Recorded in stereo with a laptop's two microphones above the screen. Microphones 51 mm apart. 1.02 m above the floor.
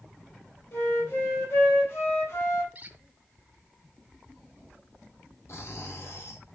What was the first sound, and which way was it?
A flute, 55° left (ahead or behind).